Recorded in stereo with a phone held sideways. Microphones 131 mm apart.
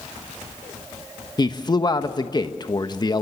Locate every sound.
1.4 s a man speaking: 30° left (ahead or behind), 1.1 m